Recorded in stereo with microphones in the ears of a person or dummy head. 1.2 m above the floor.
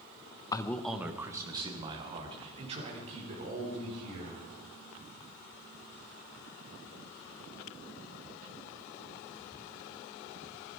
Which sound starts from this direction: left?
A man speaking, at 0.5 s.